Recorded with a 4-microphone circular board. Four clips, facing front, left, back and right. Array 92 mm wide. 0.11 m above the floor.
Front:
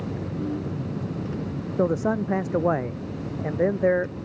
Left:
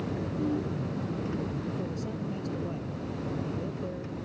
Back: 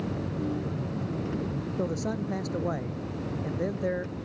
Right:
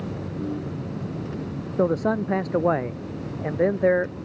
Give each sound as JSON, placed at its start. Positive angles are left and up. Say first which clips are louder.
{"t": 1.8, "sound": "a man speaking", "louder": "right 13 dB, front 9 dB", "azimuth_deg": -60}